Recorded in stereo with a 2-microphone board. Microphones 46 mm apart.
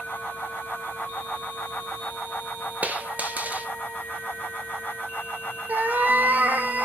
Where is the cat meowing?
40° right (ahead or behind), 0.8 m.